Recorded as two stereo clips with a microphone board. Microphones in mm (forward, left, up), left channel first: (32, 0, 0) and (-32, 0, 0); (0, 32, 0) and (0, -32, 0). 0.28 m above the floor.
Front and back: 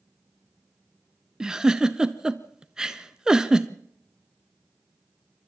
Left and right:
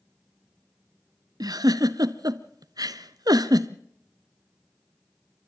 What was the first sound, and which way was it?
A giggle, 100° right.